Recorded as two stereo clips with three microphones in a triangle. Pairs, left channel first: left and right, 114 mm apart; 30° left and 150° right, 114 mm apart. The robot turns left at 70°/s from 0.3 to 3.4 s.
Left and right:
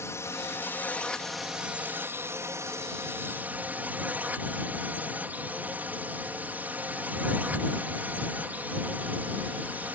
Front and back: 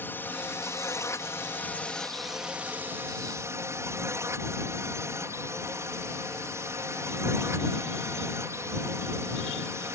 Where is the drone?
75° left; by 10.0 s 145° right.